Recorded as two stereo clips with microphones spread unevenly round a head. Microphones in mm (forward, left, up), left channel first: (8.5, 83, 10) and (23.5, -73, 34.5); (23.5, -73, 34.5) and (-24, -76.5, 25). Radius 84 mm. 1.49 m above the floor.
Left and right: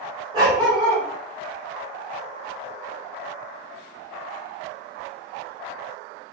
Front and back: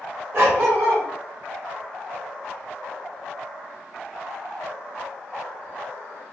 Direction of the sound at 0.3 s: 145° right.